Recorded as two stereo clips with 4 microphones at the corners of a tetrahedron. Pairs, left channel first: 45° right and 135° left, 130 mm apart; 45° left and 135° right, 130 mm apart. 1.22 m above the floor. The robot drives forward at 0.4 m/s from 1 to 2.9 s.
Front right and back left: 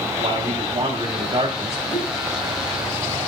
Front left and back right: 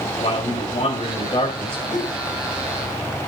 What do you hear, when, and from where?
0.2 s a man speaking: 85° left, 2.5 m; by 1.8 s 95° left, 2.5 m
1.9 s a whoosh: 30° left, 5 m